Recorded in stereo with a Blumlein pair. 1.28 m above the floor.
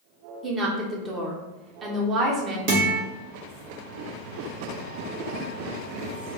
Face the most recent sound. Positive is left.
turn(degrees=-45)